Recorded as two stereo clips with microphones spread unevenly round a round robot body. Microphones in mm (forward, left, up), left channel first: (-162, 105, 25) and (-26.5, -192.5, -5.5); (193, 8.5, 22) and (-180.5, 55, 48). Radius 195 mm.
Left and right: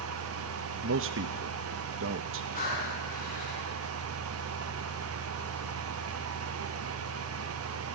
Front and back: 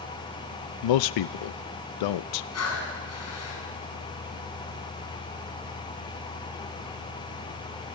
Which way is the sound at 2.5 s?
45° left.